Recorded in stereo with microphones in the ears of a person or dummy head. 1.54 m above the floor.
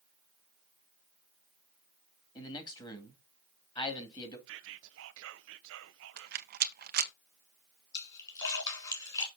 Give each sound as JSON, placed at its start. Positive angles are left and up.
{"t": 2.4, "sound": "a man speaking", "side_deg": 25, "distance_m": 2.0}
{"t": 4.5, "sound": "whispering", "side_deg": -70, "distance_m": 1.1}
{"t": 6.2, "sound": "a rattle", "side_deg": -55, "distance_m": 0.7}
{"t": 7.9, "sound": "a splash", "side_deg": 25, "distance_m": 2.5}